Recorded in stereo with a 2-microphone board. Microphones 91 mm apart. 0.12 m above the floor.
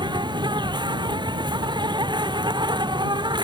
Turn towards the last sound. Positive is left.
turn(degrees=-55)  # may be behind; listen again after turning